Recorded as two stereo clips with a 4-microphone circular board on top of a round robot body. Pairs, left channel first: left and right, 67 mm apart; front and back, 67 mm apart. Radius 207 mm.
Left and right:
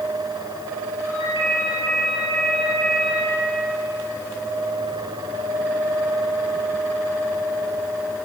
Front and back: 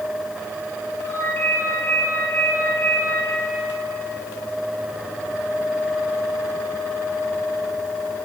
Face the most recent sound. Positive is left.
turn(degrees=-60)